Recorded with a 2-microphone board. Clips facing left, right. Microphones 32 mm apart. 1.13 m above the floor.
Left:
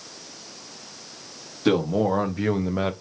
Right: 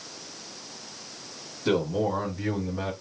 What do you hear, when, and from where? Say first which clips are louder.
1.6 s a man speaking: left 4 dB; 75° left (ahead or behind), 2 m; by 2.9 s 70° left (ahead or behind), 1.1 m